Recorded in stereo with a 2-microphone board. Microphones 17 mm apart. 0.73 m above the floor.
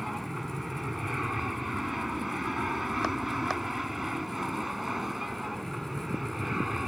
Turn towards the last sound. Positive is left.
turn(degrees=-15)  # may be behind; listen again after turning